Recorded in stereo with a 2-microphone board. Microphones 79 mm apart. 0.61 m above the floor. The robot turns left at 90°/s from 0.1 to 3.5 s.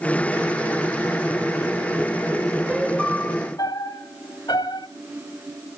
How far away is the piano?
About 1.4 m.